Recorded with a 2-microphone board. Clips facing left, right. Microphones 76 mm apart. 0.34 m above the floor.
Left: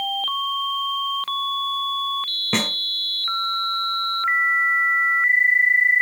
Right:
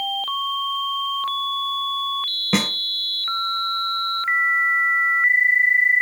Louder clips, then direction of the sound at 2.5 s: Right 2 dB; 5° right (ahead or behind).